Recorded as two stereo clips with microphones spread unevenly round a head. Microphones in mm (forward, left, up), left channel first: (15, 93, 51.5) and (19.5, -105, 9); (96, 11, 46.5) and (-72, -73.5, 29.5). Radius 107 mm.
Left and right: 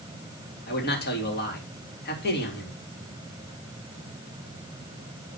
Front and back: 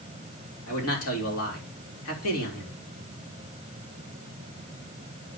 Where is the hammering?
I don't hear hammering.